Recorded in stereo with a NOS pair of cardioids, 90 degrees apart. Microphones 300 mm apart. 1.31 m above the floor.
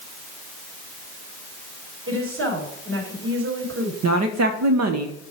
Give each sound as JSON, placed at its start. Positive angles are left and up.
{"t": 2.1, "sound": "a woman speaking", "azimuth_deg": -45, "distance_m": 4.5}
{"t": 4.0, "sound": "a woman speaking", "azimuth_deg": -60, "distance_m": 1.0}